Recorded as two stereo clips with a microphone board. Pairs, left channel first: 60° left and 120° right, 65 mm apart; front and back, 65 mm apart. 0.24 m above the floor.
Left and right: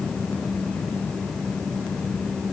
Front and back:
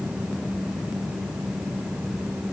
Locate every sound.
Only background noise.